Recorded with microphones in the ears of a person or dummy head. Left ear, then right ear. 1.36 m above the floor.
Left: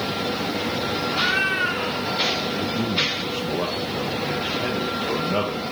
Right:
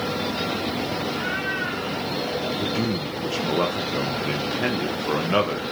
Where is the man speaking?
55° right (ahead or behind), 1.8 m.